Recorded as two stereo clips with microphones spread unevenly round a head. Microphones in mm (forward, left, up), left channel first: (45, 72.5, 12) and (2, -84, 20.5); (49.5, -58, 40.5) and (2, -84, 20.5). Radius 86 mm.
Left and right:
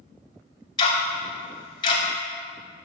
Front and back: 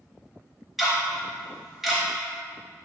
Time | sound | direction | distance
0.8 | ticking | 130° left | 0.7 m